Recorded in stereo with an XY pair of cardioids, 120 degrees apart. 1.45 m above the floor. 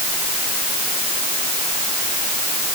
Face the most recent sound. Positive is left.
No sound to turn to.